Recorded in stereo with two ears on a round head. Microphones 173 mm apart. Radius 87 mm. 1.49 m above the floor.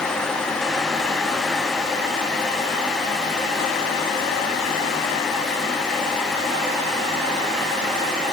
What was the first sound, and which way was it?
Only background noise.